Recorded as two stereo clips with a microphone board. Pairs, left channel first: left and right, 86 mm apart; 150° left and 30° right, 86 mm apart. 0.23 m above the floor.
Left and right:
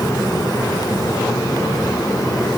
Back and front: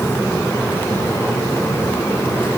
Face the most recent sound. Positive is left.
No sound to turn to.